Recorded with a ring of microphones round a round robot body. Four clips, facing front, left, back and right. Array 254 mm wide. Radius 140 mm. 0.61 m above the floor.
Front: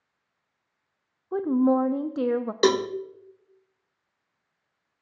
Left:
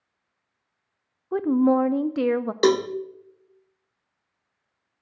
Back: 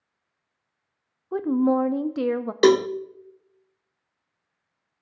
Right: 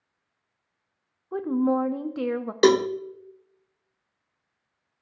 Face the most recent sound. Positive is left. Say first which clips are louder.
# right 2 dB, back 5 dB
turn(degrees=-145)